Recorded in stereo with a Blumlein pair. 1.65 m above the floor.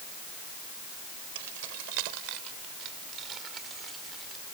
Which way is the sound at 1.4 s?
50° right.